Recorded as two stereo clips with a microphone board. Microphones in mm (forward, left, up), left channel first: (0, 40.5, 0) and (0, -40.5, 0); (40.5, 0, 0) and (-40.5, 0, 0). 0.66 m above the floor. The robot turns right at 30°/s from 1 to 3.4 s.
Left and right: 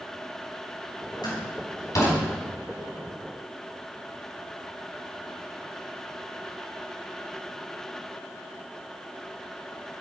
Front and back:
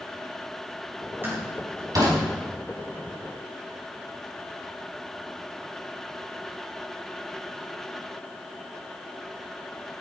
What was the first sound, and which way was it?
A door slam, 120° left.